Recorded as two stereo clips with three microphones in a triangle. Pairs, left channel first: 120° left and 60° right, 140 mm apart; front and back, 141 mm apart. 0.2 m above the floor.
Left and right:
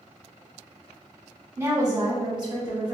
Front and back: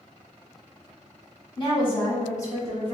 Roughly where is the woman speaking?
Ahead.